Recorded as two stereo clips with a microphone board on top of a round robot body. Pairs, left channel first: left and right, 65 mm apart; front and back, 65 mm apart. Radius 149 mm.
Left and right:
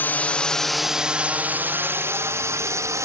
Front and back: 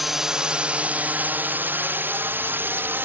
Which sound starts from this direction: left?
A drone, at 0.0 s.